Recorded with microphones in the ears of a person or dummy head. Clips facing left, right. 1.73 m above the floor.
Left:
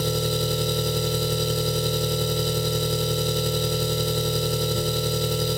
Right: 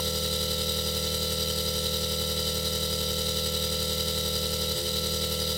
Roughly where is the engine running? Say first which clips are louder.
Left 7 dB; left.